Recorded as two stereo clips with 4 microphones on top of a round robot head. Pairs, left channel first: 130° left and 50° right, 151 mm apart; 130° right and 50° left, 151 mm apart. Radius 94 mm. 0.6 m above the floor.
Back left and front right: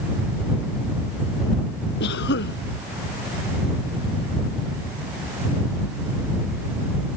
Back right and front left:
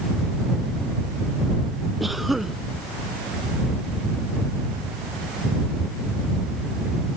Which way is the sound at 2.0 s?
135° left.